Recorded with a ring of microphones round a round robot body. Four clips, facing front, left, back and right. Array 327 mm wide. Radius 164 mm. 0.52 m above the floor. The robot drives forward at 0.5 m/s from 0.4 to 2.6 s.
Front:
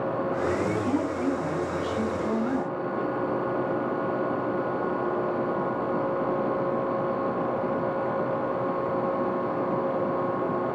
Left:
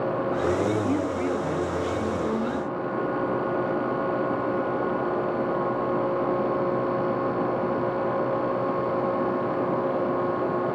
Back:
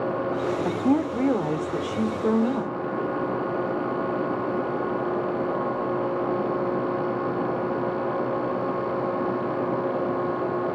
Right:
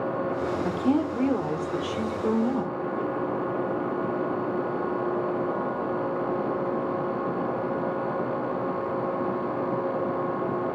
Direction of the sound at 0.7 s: 155° right.